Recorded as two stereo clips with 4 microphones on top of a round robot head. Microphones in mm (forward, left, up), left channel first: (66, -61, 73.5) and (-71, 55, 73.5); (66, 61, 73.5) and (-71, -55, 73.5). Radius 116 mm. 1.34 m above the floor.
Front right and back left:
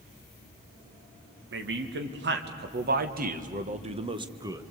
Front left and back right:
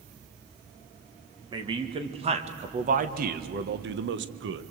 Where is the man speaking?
155° left, 2 m; by 4.7 s 145° right, 1.5 m.